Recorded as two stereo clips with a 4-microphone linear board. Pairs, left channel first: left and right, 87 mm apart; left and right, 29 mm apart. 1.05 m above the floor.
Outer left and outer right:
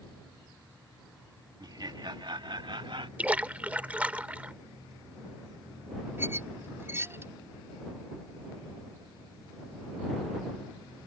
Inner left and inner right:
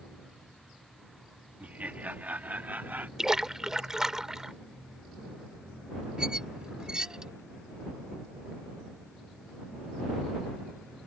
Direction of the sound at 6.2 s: 25° right (ahead or behind).